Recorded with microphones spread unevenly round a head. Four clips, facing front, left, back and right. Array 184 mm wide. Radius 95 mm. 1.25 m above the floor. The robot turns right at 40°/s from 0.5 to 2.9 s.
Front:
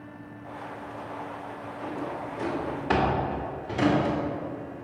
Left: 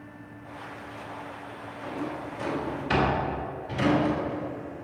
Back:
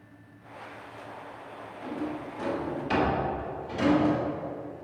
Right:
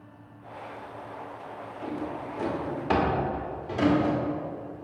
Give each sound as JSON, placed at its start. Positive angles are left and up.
{"t": 1.8, "sound": "a drawer", "azimuth_deg": -80, "distance_m": 1.9}